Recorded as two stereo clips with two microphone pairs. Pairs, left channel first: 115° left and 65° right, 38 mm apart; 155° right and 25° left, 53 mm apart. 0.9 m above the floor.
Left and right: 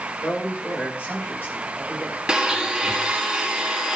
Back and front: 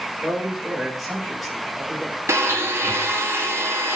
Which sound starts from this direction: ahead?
A blender, at 2.3 s.